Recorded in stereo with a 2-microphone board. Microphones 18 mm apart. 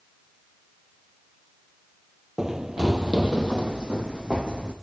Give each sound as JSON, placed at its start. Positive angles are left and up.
{"t": 2.4, "sound": "running footsteps", "side_deg": -30, "distance_m": 0.7}